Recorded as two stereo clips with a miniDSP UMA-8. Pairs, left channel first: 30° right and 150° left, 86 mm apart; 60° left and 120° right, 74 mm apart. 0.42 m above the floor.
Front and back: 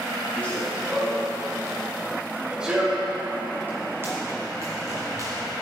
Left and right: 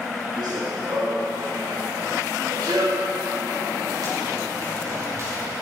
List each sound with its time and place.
0.4 s running footsteps: 100° right, 4.5 m; by 5.4 s 165° right, 5 m